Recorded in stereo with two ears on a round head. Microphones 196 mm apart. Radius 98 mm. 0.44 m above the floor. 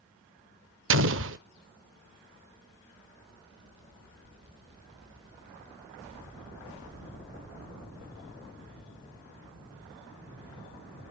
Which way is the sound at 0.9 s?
60° right (ahead or behind).